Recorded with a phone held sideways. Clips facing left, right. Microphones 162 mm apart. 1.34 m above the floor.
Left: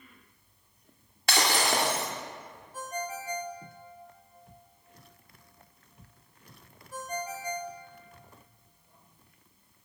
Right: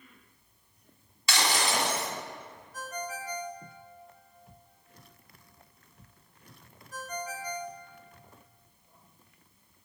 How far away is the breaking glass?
About 2.5 m.